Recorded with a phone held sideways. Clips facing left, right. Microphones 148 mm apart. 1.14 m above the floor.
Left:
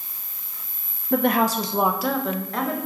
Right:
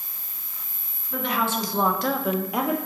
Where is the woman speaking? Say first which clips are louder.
Left 6 dB; 65° left (ahead or behind), 0.5 m; by 2.8 s 15° right (ahead or behind), 1.1 m.